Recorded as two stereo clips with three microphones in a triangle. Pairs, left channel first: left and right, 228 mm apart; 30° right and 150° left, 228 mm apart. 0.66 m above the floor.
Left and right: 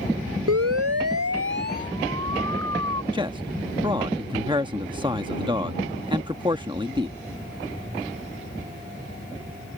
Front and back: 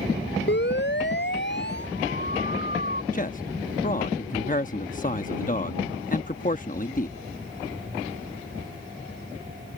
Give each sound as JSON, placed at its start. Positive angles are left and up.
{"t": 0.5, "sound": "a siren", "azimuth_deg": -75}
{"t": 3.1, "sound": "a man speaking", "azimuth_deg": -35}